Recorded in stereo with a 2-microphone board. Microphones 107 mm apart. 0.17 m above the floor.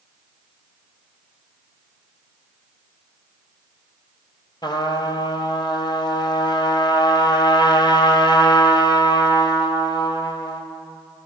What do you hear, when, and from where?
4.6 s a trumpet: 40° left (ahead or behind), 0.7 m